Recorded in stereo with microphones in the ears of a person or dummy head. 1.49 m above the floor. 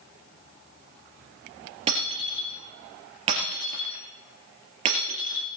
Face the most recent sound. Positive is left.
turn(degrees=-35)  # may be behind; listen again after turning